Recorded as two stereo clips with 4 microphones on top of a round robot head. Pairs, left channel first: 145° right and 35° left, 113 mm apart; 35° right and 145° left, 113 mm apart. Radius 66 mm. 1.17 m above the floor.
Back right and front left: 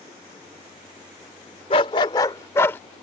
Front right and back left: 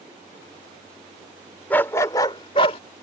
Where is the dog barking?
110° right; by 2.8 s 75° right.